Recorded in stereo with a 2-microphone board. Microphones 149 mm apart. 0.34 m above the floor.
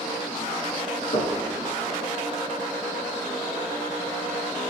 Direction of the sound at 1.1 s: 60° left (ahead or behind).